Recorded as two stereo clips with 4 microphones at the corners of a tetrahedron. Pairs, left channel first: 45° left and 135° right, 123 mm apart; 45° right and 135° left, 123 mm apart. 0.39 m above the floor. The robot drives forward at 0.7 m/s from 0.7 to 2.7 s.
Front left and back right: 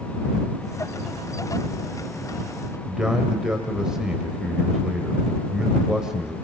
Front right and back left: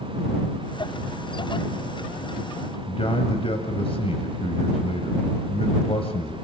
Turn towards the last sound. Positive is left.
turn(degrees=-55)